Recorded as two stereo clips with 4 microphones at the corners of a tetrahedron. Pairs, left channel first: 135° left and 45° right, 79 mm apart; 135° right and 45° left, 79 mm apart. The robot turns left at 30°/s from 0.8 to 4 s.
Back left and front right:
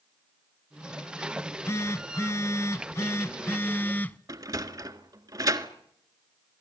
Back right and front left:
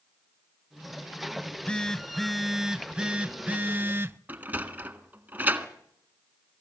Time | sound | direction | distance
1.4 | a phone buzzing | 165° left | 0.7 m
4.3 | a sliding door | 20° right | 1.6 m